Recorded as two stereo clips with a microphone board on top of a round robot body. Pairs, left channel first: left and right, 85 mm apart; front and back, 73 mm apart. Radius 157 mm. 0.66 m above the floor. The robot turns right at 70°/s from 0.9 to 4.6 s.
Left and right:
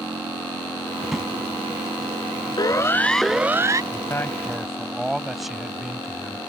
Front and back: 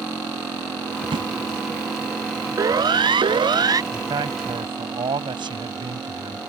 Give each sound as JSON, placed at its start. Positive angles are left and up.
{"t": 1.0, "sound": "a drawer", "azimuth_deg": 175}
{"t": 2.6, "sound": "a siren", "azimuth_deg": 130}
{"t": 3.9, "sound": "a man speaking", "azimuth_deg": 135}